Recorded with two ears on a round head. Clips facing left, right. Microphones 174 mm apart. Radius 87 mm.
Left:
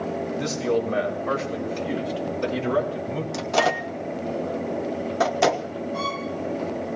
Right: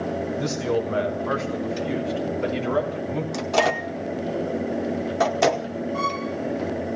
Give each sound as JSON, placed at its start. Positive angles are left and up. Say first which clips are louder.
{"t": 0.4, "sound": "a man speaking", "louder": "left 2 dB", "side_deg": 25, "distance_m": 6.0}
{"t": 3.3, "sound": "a microwave", "louder": "even", "side_deg": 0, "distance_m": 0.8}
{"t": 5.9, "sound": "a violin", "louder": "right 2 dB", "side_deg": 5, "distance_m": 3.5}